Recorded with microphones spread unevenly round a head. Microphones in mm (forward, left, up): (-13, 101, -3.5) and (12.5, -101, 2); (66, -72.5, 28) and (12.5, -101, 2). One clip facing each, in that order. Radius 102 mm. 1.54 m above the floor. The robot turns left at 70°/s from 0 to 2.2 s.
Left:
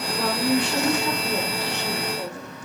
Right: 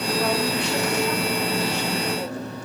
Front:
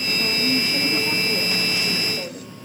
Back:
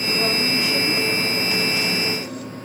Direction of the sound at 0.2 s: 135° left.